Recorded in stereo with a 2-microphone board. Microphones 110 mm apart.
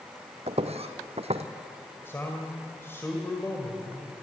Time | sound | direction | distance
0.5 | footsteps | 75° right (ahead or behind) | 1.3 m
2.0 | a man speaking | 20° left (ahead or behind) | 1.9 m